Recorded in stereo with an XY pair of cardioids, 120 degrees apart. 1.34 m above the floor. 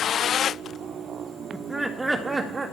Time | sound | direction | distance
1.5 | laughter | 15° right | 1.7 m